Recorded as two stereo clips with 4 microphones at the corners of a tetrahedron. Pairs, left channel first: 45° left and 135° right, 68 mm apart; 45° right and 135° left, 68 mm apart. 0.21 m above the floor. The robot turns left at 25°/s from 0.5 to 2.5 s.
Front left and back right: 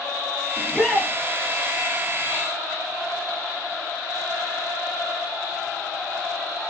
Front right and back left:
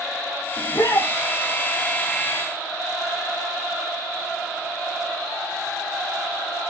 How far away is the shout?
About 5 m.